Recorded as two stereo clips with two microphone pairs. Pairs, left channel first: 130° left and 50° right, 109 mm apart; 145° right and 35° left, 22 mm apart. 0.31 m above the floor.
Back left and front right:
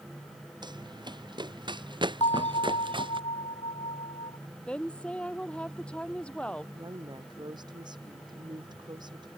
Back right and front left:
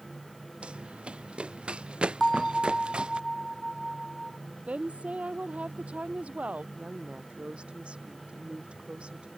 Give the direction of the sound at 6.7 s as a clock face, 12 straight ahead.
12 o'clock.